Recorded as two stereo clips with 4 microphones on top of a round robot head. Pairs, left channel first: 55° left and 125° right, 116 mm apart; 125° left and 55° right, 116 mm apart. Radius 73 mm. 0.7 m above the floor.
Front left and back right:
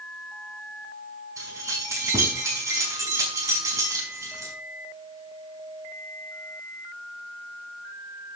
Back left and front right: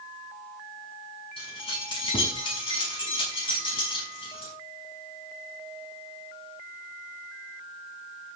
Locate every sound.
1.4 s keys jangling: 170° left, 5.5 m